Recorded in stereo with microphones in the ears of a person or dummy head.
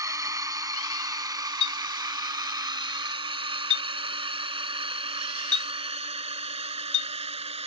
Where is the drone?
20° right (ahead or behind); by 7.7 s 30° right (ahead or behind).